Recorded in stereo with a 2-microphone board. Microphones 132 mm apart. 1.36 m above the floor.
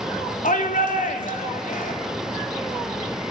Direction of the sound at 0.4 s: 85° left.